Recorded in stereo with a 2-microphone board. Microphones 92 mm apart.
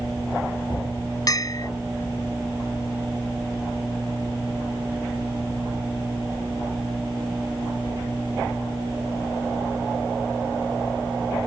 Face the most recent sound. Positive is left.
turn(degrees=40)  # may be behind; listen again after turning